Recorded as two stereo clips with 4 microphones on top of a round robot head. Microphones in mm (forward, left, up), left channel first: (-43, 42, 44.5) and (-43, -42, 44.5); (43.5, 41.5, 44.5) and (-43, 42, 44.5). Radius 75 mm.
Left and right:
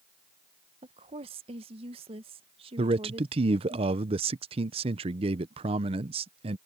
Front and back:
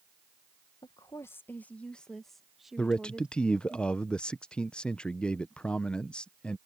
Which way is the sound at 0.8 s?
60° right.